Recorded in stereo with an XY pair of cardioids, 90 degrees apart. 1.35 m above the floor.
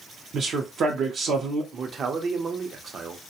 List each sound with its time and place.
0.3 s a man speaking: 65° right, 0.6 m
1.7 s a man speaking: 55° right, 0.6 m